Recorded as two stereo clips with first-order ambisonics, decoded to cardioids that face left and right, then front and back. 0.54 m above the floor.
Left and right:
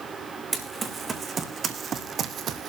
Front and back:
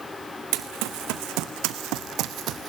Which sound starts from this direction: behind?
Running footsteps, at 0.5 s.